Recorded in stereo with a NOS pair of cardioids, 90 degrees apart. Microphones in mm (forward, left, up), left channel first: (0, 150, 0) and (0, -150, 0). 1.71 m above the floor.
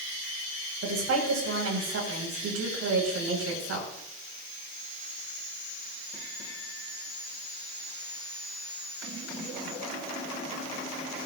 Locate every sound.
0.8 s a woman speaking: 60° right, 5.5 m